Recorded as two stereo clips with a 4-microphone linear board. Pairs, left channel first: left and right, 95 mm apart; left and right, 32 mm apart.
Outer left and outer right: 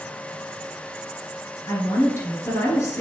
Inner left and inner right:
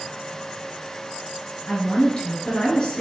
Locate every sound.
1.7 s a woman speaking: 35° left (ahead or behind), 1.8 m